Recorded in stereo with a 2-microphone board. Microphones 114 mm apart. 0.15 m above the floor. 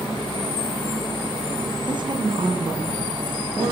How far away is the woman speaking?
About 9.5 m.